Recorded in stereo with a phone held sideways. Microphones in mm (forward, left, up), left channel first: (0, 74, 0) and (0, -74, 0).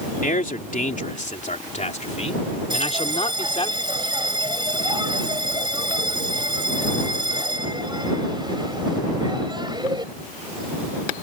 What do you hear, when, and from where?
0.2 s a man speaking: 65° left (ahead or behind); by 3.7 s 35° left (ahead or behind)
2.7 s a bell: 30° right (ahead or behind)